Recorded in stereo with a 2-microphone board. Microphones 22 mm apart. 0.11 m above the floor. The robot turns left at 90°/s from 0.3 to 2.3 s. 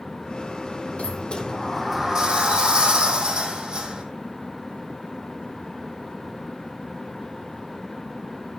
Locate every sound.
1.0 s a sliding door: 75° left, 2.5 m; by 4.0 s 45° right, 2.5 m